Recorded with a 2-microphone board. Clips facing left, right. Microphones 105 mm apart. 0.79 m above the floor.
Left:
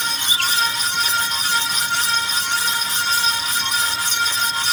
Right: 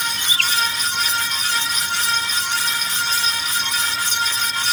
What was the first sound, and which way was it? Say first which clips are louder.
A bird: left 1 dB; 65° right (ahead or behind).